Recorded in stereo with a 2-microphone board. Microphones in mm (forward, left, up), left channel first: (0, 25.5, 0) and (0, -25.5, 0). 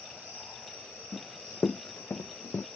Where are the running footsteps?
15° left (ahead or behind); by 2.7 s 85° left.